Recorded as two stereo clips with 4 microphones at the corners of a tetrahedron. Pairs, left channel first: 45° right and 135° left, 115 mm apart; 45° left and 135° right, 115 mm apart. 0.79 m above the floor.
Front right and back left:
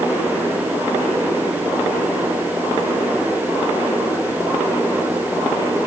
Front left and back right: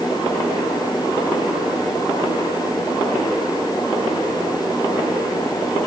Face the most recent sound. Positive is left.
No sound to turn to.